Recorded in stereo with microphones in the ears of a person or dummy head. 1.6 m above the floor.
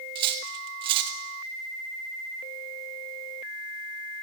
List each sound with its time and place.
0.1 s cutlery clinking: 25° right (ahead or behind), 0.7 m